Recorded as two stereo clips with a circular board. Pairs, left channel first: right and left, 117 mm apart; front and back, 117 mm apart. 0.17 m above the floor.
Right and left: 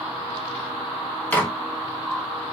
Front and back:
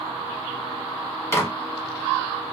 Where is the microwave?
35° right, 0.8 m.